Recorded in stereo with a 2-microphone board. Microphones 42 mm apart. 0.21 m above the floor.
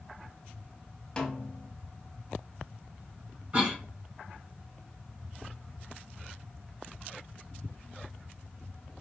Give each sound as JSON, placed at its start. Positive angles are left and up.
{"t": 1.2, "sound": "a snare drum", "side_deg": 15, "distance_m": 0.6}
{"t": 3.5, "sound": "a cough", "side_deg": -35, "distance_m": 1.5}